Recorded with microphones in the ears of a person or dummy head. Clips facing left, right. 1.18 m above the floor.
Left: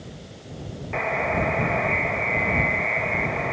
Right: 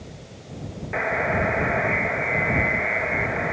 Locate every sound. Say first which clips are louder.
0.9 s a buzzer: right 1 dB; 5° right (ahead or behind)